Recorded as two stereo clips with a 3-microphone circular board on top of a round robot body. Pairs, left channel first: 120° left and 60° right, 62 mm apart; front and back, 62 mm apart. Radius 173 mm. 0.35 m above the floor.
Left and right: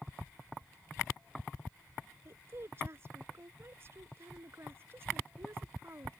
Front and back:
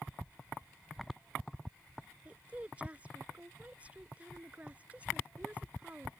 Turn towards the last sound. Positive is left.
turn(degrees=-110)